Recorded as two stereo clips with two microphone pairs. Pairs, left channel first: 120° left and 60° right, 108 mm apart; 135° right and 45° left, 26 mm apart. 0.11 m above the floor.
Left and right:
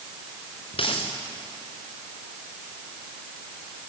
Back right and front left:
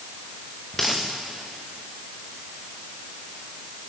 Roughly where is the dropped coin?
Behind left.